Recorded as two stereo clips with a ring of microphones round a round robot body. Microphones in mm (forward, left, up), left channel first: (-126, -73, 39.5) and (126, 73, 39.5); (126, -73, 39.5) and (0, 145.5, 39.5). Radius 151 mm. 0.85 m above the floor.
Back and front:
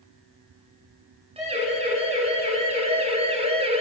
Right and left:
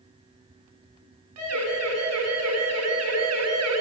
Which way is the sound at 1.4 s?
100° left.